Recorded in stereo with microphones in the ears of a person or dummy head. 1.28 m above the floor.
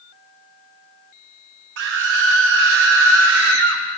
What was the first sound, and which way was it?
A scream, 70° right (ahead or behind).